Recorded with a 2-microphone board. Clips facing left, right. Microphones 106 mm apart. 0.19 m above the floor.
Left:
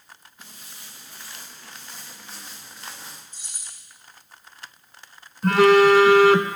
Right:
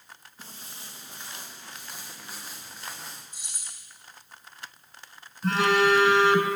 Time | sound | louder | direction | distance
0.4 | footsteps | right 3 dB | 35° right (ahead or behind) | 1.8 m
3.3 | keys jangling | even | 10° right (ahead or behind) | 5 m
5.4 | a phone buzzing | left 8 dB | 65° left (ahead or behind) | 0.7 m